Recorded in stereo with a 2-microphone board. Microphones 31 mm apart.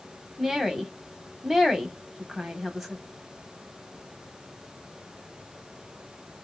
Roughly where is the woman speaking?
Centre.